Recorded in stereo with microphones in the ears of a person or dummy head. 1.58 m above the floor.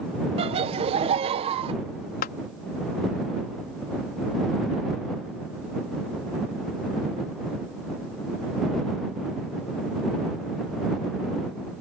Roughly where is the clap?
Left.